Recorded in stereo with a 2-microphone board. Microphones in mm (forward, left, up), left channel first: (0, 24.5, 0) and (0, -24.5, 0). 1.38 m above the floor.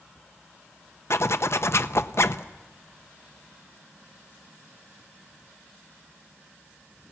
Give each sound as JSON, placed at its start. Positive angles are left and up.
{"t": 1.1, "sound": "a zipper", "side_deg": 60, "distance_m": 0.6}